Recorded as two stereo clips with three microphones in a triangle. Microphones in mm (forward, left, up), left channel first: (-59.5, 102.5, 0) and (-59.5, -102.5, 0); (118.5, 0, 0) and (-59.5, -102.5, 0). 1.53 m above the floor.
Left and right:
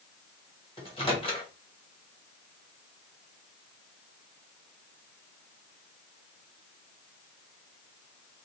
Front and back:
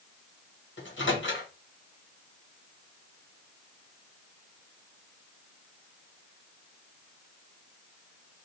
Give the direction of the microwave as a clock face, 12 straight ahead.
11 o'clock.